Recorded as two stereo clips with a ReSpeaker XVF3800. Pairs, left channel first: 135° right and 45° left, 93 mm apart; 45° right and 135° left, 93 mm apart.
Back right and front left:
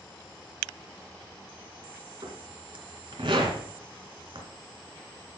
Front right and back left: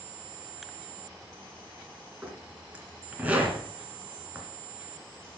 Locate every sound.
2.2 s a zipper: 60° left, 2 m